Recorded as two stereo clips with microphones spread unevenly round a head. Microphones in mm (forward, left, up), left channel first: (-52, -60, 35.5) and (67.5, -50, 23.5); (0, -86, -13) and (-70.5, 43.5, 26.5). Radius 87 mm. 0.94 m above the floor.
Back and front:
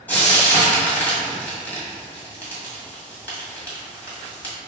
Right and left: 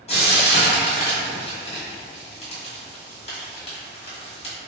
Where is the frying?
100° right, 1.5 m.